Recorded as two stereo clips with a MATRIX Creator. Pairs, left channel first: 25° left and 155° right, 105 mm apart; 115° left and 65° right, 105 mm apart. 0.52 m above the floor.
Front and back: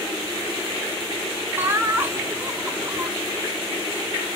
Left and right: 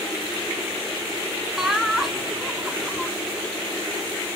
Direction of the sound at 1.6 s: 150° right.